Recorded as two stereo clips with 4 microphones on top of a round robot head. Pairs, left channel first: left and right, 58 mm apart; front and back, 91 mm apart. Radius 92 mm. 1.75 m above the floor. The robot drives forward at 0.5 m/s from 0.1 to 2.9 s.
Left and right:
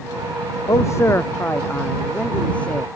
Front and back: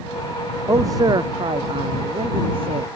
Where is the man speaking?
120° left; by 2.9 s 160° left.